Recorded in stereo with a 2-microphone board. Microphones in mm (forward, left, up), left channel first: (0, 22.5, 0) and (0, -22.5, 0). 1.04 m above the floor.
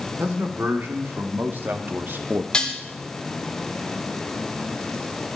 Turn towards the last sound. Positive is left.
turn(degrees=15)  # may be behind; listen again after turning